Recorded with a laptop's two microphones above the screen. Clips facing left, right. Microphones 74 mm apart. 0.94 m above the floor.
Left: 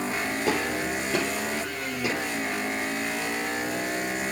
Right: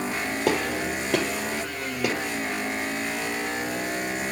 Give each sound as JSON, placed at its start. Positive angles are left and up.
{"t": 0.5, "sound": "a gunshot", "side_deg": -80, "distance_m": 4.0}